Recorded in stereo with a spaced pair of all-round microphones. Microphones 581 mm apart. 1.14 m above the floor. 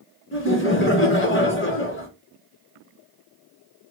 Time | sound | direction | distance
0.3 | laughter | 20° left (ahead or behind) | 1.4 m